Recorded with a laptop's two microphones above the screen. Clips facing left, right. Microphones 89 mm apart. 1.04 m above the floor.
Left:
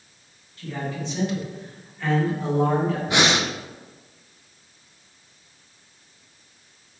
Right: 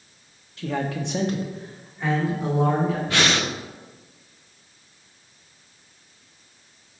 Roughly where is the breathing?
Centre.